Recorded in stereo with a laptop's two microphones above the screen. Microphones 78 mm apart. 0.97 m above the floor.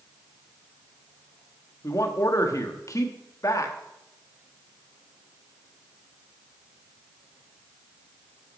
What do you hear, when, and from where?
1.8 s a man speaking: 45° left (ahead or behind), 1.3 m